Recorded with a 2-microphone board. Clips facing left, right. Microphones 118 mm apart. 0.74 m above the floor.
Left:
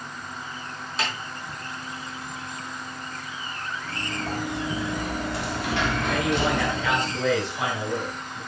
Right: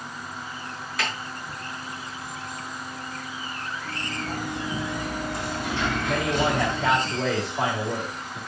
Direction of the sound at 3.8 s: 85° left.